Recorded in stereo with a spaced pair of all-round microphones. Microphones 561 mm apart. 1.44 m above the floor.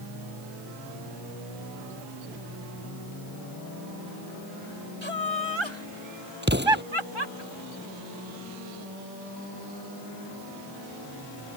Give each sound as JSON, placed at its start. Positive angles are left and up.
{"t": 5.0, "sound": "laughter", "side_deg": -55}
{"t": 6.4, "sound": "an explosion", "side_deg": -20}